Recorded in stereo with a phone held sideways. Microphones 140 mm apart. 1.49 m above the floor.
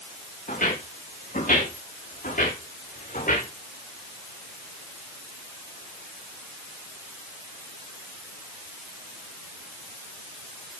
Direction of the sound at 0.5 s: 75° left (ahead or behind).